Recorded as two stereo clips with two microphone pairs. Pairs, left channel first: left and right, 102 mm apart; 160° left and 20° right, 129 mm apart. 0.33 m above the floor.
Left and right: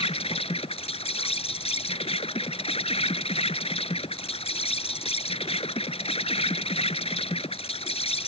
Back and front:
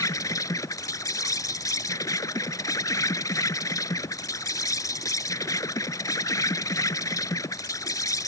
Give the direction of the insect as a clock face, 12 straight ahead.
9 o'clock.